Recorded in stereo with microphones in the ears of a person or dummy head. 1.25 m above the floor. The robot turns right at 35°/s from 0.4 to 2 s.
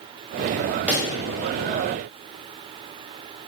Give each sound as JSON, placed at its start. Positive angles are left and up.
{"t": 0.9, "sound": "a pop", "side_deg": -10, "distance_m": 0.9}